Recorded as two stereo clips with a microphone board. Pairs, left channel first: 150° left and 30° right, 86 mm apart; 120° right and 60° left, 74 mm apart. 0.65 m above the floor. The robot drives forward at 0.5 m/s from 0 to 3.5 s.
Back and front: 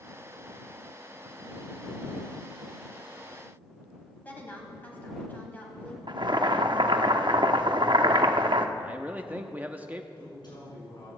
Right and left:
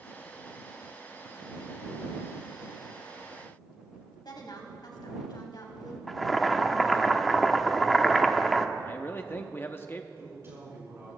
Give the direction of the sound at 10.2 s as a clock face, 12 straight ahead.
8 o'clock.